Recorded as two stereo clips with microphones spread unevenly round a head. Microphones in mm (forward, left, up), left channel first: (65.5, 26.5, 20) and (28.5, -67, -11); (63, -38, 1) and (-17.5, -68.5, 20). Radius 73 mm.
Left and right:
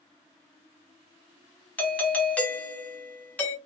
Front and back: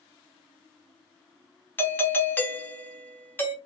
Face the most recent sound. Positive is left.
turn(degrees=-20)